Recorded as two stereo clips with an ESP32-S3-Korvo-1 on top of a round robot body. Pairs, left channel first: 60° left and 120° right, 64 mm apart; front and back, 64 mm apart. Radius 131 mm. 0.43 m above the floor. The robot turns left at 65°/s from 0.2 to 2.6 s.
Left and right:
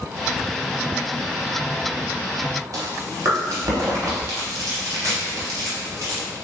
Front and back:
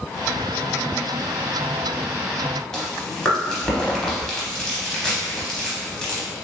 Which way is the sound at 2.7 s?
80° right.